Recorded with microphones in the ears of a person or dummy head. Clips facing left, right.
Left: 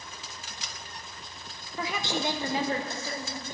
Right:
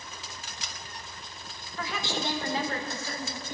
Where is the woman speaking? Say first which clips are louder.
Left 2 dB; 15° left (ahead or behind), 0.8 m; by 3.5 s 20° left (ahead or behind), 1.9 m.